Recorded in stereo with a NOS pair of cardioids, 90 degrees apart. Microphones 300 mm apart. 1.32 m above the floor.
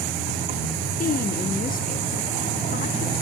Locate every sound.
1.0 s a woman speaking: 30° left, 1.0 m